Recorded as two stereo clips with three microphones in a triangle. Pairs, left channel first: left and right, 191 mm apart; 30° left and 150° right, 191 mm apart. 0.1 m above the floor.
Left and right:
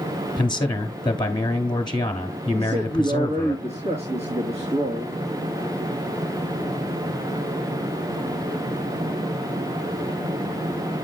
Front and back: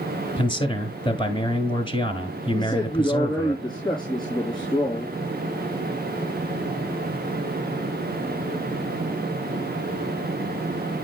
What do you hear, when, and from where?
0.4 s a man speaking: 60° left, 1.1 m
2.5 s a man speaking: 35° right, 4 m